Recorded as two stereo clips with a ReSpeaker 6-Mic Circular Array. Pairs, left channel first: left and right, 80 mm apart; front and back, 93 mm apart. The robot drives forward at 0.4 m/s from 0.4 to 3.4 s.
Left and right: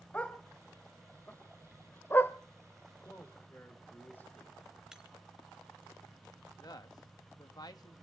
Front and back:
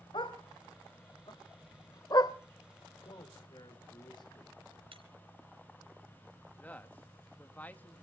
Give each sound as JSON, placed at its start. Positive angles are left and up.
{"t": 0.1, "sound": "a dog barking", "azimuth_deg": 20, "distance_m": 1.6}
{"t": 3.0, "sound": "a man speaking", "azimuth_deg": 25, "distance_m": 4.0}
{"t": 4.9, "sound": "breaking glass", "azimuth_deg": -170, "distance_m": 3.0}
{"t": 6.6, "sound": "a man speaking", "azimuth_deg": 70, "distance_m": 1.4}